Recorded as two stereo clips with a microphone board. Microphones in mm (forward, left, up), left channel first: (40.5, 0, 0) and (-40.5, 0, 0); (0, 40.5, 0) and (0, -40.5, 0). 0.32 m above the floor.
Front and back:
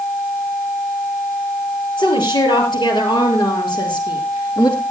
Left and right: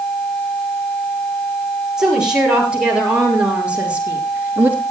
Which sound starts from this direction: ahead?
A woman speaking, at 2.0 s.